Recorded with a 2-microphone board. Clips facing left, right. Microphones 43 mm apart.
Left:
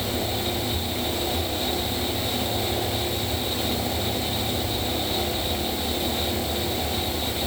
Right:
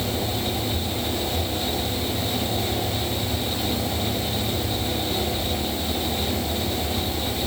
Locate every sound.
Only background noise.